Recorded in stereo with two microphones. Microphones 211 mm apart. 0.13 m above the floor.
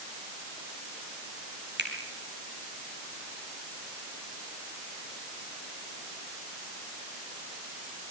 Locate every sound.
1.8 s a finger snap: 55° right (ahead or behind), 4 m